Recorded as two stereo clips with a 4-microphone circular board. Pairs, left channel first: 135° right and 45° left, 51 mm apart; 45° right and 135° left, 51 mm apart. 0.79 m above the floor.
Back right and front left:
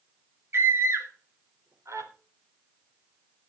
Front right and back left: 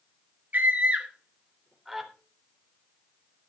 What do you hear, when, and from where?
0.5 s a scream: 80° left, 3 m; by 2.1 s 45° left, 3.5 m